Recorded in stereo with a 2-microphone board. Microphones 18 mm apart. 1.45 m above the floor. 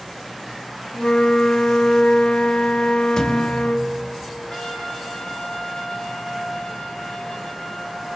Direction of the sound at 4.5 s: 45° left (ahead or behind).